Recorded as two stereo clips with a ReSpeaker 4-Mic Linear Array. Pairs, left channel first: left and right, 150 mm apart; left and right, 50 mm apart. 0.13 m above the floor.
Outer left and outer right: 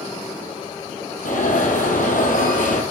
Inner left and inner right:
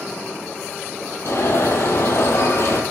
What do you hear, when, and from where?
1.2 s an alarm: 60° left (ahead or behind), 2.5 m